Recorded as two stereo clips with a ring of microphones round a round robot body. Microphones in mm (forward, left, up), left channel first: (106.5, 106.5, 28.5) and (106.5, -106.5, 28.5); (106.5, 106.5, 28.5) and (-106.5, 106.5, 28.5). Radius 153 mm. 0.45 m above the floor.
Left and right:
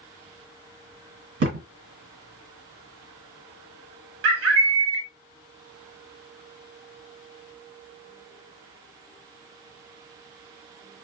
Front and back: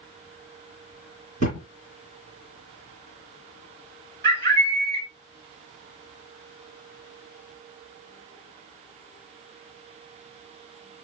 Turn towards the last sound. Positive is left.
turn(degrees=-80)